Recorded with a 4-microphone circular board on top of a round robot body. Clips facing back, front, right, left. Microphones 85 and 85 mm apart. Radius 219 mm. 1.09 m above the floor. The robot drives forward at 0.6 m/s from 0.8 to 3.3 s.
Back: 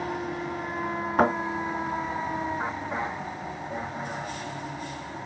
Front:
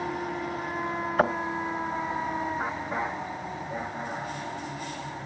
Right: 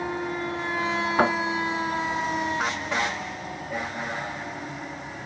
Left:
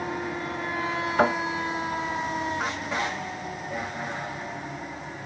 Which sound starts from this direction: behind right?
A thud, at 1.2 s.